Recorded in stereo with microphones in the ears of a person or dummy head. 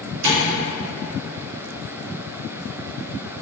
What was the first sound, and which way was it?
Tapping, 70° right (ahead or behind).